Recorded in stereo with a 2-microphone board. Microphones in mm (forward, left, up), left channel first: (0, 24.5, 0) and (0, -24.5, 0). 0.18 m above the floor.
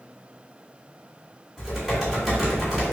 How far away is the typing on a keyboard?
About 1.7 m.